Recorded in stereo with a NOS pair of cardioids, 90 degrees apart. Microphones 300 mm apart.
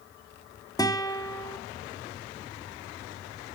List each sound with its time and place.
0.8 s a guitar: 10° left, 3 m